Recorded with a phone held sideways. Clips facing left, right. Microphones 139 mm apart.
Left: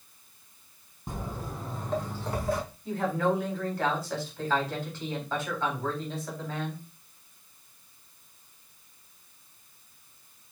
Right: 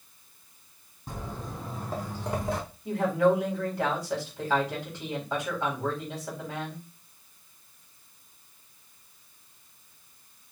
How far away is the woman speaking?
About 4.5 m.